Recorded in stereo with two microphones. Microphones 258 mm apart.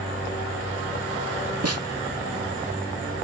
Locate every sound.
1.6 s a snare drum: 70° right (ahead or behind), 0.9 m